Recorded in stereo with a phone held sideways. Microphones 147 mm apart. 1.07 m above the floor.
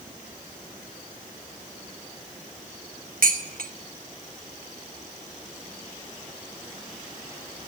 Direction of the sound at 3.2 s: 75° right (ahead or behind).